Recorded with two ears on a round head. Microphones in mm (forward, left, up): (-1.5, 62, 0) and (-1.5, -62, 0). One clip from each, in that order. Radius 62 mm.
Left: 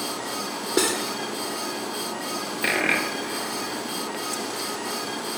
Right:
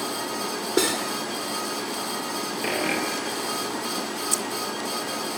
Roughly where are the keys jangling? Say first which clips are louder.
Right 2 dB; right.